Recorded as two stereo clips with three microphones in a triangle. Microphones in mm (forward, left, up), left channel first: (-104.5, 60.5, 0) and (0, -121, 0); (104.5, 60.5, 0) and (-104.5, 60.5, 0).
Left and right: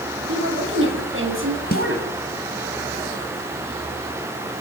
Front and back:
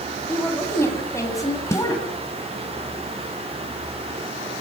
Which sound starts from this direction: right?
A woman speaking, at 0.3 s.